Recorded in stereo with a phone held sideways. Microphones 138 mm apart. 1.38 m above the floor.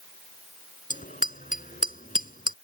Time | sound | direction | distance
0.9 | a bicycle bell | 75° left (ahead or behind) | ?